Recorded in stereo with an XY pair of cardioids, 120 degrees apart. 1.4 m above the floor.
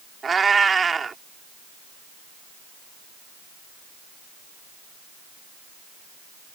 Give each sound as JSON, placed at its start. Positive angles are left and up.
{"t": 0.2, "sound": "a cat meowing", "azimuth_deg": -30}